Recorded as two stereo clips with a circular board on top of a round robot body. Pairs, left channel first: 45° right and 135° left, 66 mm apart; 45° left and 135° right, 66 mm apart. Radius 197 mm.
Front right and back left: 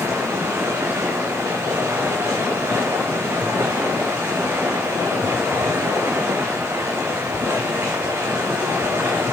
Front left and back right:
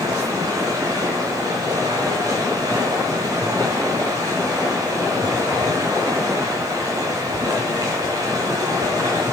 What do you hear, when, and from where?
0.0 s running water: 170° right, 1.0 m